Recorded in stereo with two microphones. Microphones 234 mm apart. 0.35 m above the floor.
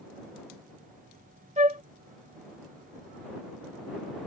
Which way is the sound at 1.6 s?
30° right (ahead or behind).